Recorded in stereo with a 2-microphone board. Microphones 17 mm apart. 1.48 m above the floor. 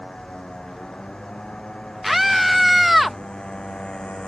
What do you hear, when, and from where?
0.0 s a motorcycle: 55° left (ahead or behind); by 4.3 s 90° left
2.0 s a scream: 5° right (ahead or behind)